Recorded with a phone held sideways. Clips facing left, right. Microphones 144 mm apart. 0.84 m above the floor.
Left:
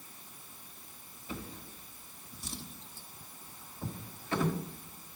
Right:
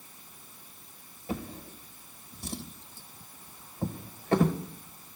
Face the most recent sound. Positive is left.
turn(degrees=-60)  # may be behind; listen again after turning